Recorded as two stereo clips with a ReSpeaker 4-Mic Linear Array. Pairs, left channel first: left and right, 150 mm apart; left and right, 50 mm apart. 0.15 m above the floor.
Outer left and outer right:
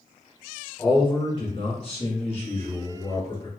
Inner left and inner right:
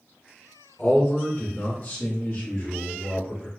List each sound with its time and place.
0.8 s a man speaking: 30° left (ahead or behind), 1.4 m; by 3.5 s 40° left (ahead or behind), 1.8 m